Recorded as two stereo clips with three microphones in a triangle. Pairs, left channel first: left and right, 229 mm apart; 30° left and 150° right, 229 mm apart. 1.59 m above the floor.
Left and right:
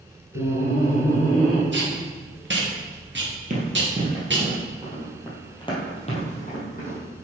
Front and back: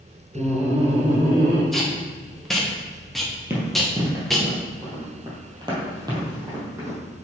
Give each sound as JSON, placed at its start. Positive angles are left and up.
{"t": 0.3, "sound": "laughter", "azimuth_deg": 110, "distance_m": 1.1}
{"t": 1.7, "sound": "tape being pulled", "azimuth_deg": -60, "distance_m": 1.1}
{"t": 3.5, "sound": "running footsteps", "azimuth_deg": -80, "distance_m": 1.9}